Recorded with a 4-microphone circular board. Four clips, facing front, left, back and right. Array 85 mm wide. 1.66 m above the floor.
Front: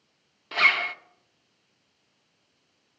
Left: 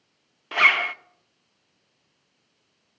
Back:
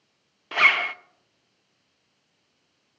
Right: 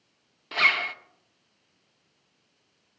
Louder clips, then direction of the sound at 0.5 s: Left 4 dB, back 3 dB; 125° left.